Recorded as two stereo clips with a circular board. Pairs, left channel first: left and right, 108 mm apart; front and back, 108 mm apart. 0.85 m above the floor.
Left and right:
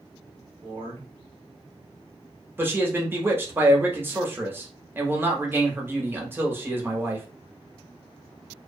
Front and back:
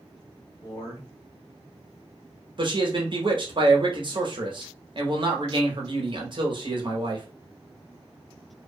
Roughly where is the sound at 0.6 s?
Ahead right.